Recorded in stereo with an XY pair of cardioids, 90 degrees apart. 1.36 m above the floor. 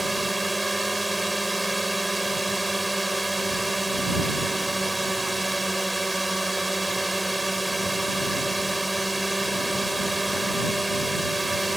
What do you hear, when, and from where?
0.0 s a drone: 10° right